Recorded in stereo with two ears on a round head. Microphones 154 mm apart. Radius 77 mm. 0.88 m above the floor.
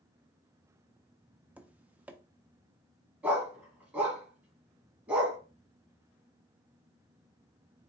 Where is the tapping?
10° right (ahead or behind), 0.5 m.